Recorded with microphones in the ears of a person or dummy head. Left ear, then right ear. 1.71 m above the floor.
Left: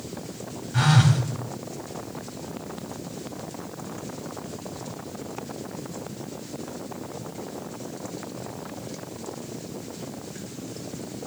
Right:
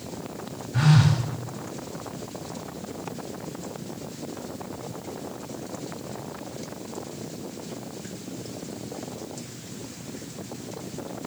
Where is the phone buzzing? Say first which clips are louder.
Left 2 dB; 15° left (ahead or behind), 2.0 m.